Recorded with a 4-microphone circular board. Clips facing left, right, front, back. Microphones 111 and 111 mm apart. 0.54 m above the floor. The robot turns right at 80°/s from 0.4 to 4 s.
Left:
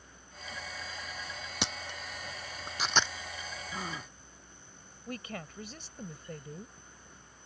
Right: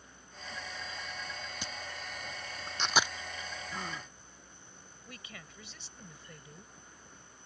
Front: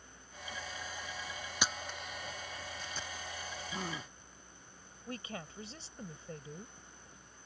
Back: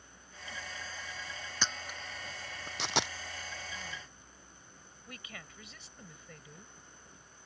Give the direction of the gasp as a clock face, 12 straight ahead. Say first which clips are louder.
Left 3 dB, front 5 dB; 12 o'clock.